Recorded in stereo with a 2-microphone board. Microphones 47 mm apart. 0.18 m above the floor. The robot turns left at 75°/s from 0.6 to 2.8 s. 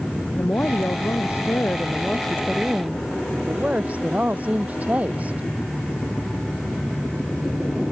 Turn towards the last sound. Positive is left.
turn(degrees=-35)